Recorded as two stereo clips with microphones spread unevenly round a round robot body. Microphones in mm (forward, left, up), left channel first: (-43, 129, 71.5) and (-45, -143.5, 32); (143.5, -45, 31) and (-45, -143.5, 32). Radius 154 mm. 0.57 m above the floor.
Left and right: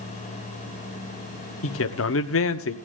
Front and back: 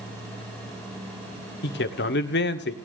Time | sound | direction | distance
1.6 | a man speaking | 50° left | 1.6 m